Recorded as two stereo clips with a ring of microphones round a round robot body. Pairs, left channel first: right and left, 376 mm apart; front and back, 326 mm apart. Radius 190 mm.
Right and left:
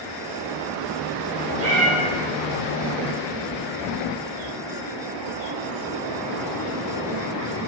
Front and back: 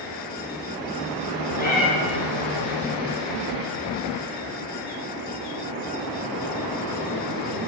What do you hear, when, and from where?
1.6 s a cat meowing: 65° left, 1.5 m